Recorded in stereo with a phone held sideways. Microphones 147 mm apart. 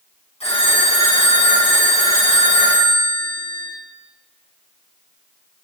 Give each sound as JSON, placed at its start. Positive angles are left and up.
{"t": 0.4, "sound": "a phone ringing", "side_deg": 45, "distance_m": 6.5}